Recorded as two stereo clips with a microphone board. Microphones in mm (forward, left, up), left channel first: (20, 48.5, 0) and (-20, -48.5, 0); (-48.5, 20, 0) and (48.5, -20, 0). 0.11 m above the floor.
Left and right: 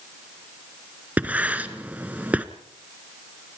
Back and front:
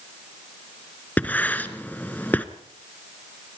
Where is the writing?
160° right, 1.1 m.